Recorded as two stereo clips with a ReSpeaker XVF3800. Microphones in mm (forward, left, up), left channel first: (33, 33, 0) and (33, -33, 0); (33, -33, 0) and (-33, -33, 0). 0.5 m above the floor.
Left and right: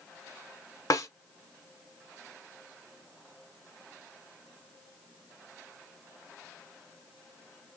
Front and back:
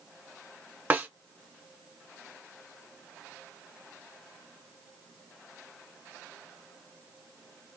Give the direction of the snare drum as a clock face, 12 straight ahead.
8 o'clock.